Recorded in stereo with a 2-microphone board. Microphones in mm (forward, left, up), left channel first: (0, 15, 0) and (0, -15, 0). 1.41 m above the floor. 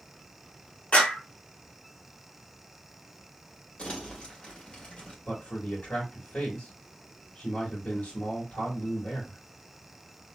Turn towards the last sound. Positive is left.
turn(degrees=65)  # may be behind; listen again after turning